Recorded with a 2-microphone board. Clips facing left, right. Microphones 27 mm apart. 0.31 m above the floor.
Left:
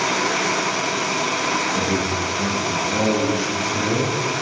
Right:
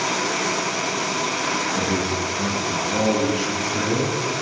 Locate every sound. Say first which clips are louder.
1.7 s a man speaking: left 1 dB; 25° left (ahead or behind), 2.5 m; by 4.2 s 10° right (ahead or behind), 2.5 m